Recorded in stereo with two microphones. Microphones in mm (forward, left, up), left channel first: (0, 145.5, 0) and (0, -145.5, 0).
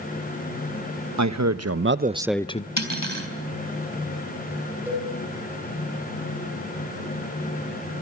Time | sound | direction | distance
1.2 | a man speaking | 70° right (ahead or behind) | 1.1 m
2.8 | cutlery clinking | 65° left (ahead or behind) | 3.5 m
4.9 | a cowbell | 5° right (ahead or behind) | 6 m